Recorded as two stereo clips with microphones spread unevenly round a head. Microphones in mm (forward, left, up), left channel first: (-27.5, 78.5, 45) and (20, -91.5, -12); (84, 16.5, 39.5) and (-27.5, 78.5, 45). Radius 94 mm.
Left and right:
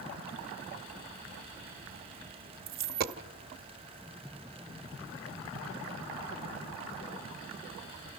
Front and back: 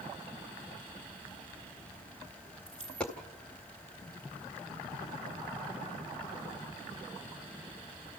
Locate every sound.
2.7 s a dropped coin: 115° right, 1.0 m